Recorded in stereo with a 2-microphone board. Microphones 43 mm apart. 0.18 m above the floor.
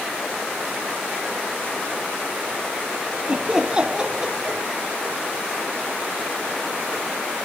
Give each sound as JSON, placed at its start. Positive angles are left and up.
{"t": 3.3, "sound": "laughter", "side_deg": -20}